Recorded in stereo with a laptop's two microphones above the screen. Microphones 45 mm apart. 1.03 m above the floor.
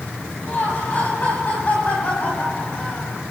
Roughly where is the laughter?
Left.